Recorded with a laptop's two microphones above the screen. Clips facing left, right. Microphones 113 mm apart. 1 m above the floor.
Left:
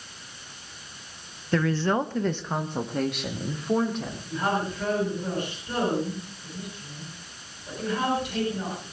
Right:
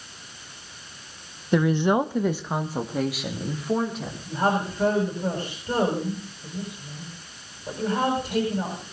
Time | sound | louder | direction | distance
1.5 | a woman speaking | right 3 dB | 15° right (ahead or behind) | 0.7 m
4.3 | a woman speaking | right 4 dB | 35° right (ahead or behind) | 7 m